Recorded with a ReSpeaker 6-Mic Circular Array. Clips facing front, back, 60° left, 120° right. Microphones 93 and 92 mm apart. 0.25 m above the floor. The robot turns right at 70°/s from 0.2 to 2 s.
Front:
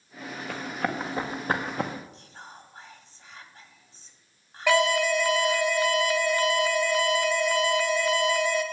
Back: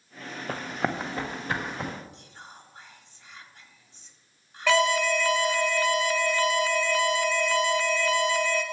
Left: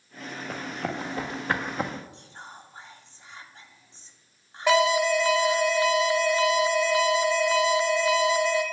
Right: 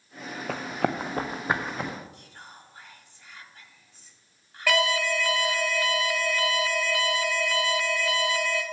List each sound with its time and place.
0.5 s running footsteps: 135° right, 1.2 m; by 1.9 s 10° right, 1.6 m
2.1 s whispering: 15° left, 1.2 m
4.7 s an alarm: 45° left, 1.2 m